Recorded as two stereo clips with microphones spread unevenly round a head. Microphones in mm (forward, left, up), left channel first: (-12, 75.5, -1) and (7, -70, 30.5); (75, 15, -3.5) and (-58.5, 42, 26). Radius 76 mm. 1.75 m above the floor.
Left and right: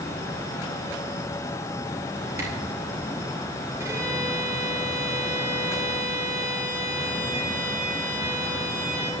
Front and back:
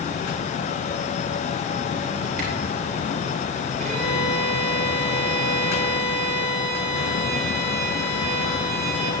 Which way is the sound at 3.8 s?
150° right.